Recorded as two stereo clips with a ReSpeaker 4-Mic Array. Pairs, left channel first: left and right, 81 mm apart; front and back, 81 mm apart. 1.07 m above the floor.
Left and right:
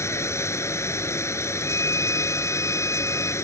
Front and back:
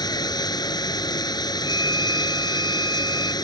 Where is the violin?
140° left.